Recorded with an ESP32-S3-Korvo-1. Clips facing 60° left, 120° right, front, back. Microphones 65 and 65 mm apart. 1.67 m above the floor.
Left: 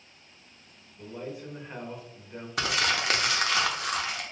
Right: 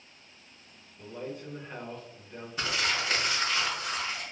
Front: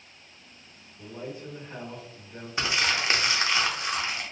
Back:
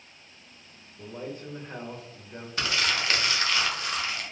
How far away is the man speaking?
About 1.0 m.